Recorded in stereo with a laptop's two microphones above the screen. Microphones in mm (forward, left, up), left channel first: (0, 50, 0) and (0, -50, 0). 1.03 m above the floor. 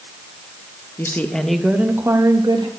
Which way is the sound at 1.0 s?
25° left (ahead or behind).